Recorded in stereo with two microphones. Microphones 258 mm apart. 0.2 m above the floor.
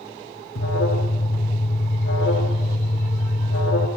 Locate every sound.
0.6 s an alarm: 55° left (ahead or behind), 4 m